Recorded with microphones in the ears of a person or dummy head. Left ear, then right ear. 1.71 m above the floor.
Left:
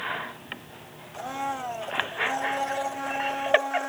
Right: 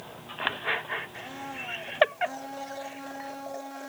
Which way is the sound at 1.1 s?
45° left (ahead or behind).